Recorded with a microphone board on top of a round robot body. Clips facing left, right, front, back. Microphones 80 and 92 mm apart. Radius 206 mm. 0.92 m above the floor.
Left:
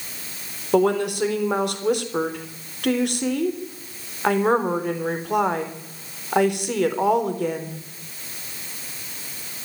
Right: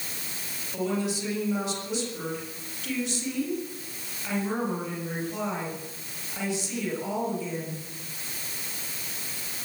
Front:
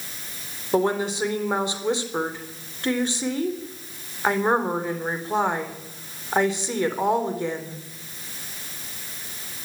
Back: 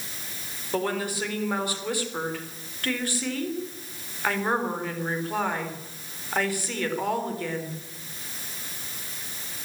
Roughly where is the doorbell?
I don't hear a doorbell.